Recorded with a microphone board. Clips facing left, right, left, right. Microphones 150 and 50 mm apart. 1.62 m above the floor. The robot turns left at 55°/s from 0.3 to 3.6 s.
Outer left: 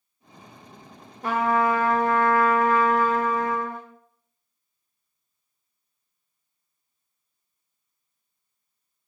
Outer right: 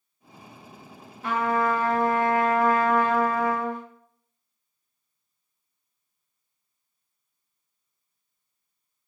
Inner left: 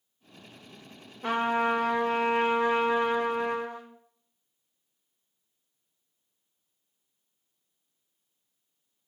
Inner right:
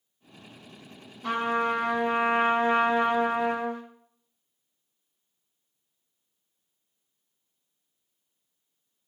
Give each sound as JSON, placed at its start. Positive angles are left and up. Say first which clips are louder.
{"t": 1.2, "sound": "a trumpet", "louder": "outer left 2 dB, even", "azimuth_deg": 40, "distance_m": 0.7}